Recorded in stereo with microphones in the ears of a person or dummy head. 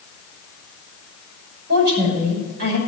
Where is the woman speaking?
55° right (ahead or behind), 6 m.